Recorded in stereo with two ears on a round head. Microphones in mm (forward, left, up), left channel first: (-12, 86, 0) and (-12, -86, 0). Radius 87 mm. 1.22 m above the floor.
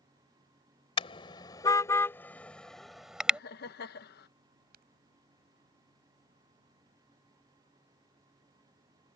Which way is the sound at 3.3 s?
60° left (ahead or behind).